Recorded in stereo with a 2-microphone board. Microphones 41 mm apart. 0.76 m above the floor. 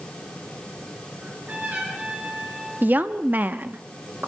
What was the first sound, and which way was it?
A trumpet, 35° right (ahead or behind).